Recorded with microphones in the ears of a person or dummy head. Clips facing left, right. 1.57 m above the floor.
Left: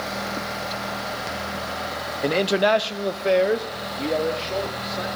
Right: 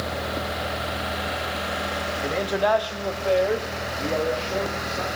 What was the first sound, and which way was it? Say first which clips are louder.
A man speaking: left 4 dB; 45° left (ahead or behind).